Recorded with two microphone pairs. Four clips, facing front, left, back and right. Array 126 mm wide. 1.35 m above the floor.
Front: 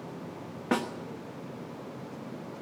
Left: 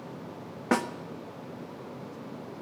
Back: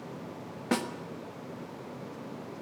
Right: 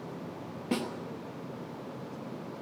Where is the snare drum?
65° left, 1.2 m.